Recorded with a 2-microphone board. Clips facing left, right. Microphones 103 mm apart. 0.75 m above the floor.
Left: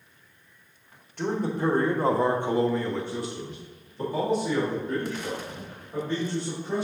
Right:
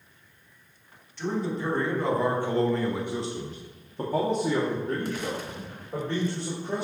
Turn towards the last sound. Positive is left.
turn(degrees=-65)  # may be behind; listen again after turning